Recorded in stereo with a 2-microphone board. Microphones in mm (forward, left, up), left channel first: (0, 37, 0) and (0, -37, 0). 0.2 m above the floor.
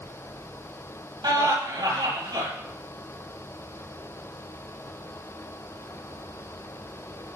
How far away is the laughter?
About 5.5 m.